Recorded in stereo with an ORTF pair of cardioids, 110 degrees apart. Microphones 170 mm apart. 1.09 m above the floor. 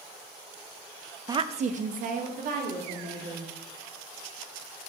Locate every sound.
1.3 s a woman speaking: 20° right, 0.5 m; by 3.5 s 65° right, 3.5 m